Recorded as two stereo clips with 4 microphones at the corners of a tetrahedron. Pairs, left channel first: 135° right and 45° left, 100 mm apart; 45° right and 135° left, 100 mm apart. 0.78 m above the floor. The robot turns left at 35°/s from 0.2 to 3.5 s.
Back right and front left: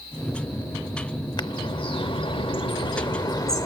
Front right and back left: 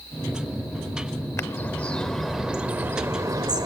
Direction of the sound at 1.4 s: 105° right.